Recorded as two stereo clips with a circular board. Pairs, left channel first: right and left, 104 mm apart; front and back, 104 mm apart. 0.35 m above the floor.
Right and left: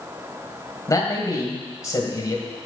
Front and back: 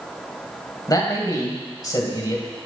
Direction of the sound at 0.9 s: 40° right.